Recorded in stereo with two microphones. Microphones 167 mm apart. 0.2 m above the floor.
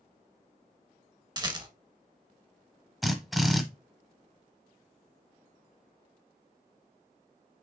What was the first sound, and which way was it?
A rattle, 25° right (ahead or behind).